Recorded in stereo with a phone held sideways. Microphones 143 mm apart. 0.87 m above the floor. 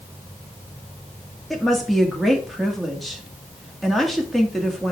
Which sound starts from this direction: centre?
A woman speaking, at 1.5 s.